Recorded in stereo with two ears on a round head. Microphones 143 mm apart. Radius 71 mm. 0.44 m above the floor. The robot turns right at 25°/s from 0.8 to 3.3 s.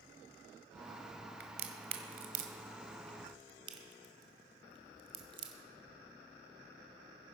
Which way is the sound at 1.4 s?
70° right (ahead or behind).